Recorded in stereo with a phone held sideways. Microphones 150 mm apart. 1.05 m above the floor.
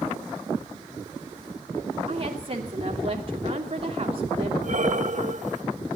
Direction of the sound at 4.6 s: 60° right (ahead or behind).